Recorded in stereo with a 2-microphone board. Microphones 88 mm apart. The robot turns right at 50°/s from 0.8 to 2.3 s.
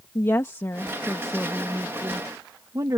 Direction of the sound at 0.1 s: 150° left.